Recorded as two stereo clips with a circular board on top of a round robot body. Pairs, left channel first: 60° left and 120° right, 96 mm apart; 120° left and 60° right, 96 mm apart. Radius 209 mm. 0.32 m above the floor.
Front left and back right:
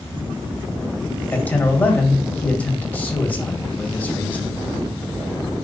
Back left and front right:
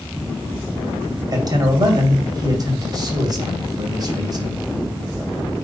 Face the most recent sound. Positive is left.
turn(degrees=-15)